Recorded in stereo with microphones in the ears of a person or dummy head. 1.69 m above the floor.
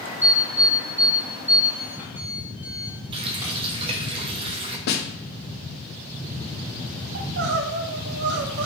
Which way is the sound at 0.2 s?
10° right (ahead or behind).